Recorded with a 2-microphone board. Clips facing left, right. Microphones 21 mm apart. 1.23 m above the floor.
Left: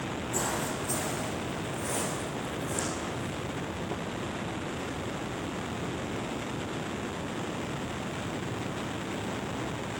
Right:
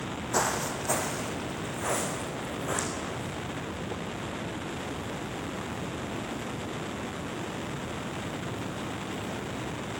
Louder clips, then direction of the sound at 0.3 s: Right 4 dB; 55° right (ahead or behind).